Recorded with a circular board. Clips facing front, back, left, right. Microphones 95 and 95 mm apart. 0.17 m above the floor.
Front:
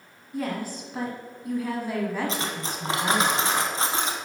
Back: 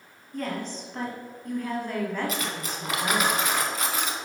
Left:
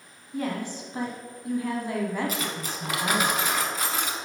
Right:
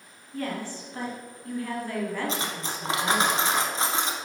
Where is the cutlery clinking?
45° right, 1.1 m.